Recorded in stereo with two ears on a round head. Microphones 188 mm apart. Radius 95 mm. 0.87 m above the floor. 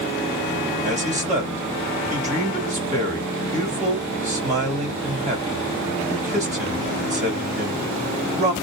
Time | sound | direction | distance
0.8 | a man speaking | 35° right (ahead or behind) | 1.7 m